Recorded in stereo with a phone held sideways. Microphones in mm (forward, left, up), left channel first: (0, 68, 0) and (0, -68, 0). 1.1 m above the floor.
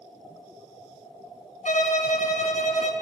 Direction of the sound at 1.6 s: 70° left (ahead or behind).